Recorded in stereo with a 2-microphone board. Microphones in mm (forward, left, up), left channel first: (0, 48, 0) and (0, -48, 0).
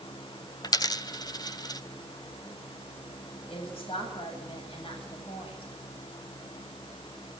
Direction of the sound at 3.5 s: 70° left (ahead or behind).